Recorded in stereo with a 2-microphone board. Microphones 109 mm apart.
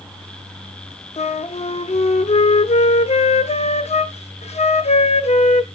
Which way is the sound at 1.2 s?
85° left.